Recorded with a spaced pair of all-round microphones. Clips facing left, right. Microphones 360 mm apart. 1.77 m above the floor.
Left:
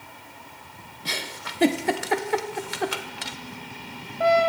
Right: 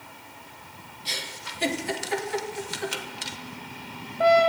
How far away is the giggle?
About 1.2 m.